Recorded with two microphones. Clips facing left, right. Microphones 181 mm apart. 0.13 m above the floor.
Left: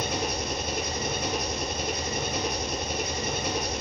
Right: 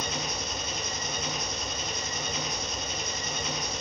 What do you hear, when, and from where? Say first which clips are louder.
0.0 s an engine running: left 5 dB; 60° left (ahead or behind), 1.2 m